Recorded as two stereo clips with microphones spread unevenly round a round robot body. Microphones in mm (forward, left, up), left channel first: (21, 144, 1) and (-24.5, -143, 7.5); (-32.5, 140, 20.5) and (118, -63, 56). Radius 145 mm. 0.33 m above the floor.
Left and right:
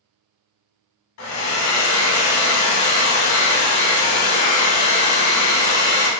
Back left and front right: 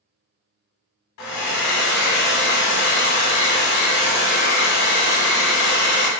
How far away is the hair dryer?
About 0.7 m.